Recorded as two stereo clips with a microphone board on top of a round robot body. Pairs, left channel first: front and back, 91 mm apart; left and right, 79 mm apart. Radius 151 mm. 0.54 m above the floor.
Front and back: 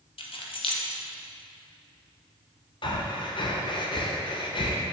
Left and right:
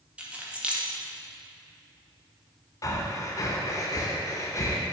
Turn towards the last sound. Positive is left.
turn(degrees=40)